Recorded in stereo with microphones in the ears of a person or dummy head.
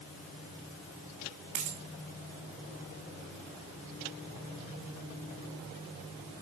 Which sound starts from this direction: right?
A dropped coin, at 1.6 s.